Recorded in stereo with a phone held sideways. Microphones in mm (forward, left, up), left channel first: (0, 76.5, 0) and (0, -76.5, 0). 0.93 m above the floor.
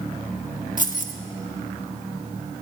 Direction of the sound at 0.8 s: 60° left (ahead or behind).